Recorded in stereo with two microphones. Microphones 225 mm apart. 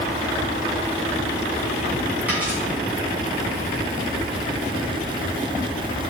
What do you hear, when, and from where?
2.3 s a dropped coin: 5° right (ahead or behind), 2.5 m